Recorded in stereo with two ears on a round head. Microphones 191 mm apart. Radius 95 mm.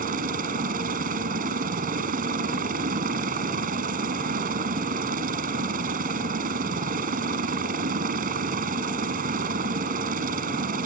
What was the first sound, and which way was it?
A helicopter, 40° right (ahead or behind).